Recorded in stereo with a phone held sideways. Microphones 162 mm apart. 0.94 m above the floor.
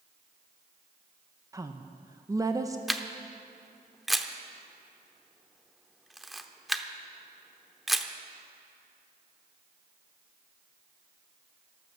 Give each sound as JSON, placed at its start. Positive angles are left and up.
{"t": 1.5, "sound": "a woman speaking", "side_deg": -20, "distance_m": 0.6}
{"t": 2.9, "sound": "a camera shutter", "side_deg": 0, "distance_m": 0.7}